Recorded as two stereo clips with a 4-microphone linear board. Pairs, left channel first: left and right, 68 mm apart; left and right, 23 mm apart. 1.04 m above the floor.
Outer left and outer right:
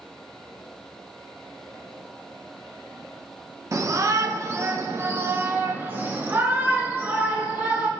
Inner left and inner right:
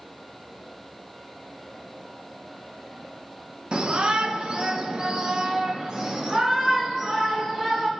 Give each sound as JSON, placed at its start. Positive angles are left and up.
{"t": 3.7, "sound": "a shout", "side_deg": -50, "distance_m": 0.9}